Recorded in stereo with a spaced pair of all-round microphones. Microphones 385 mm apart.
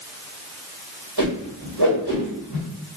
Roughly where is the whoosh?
Right.